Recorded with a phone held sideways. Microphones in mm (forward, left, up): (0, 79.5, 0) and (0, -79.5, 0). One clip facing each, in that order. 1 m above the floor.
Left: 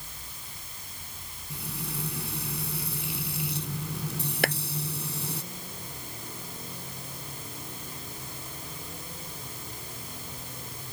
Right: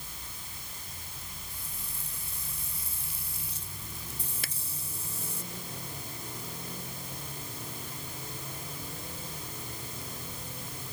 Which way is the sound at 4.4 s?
65° left (ahead or behind).